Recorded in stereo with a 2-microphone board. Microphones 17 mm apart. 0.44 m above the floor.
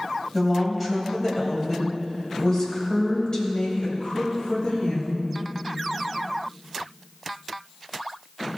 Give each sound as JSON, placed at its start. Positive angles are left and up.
{"t": 0.3, "sound": "a woman speaking", "side_deg": 5, "distance_m": 3.0}